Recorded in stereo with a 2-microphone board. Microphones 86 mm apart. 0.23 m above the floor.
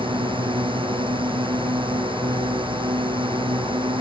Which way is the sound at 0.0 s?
85° right.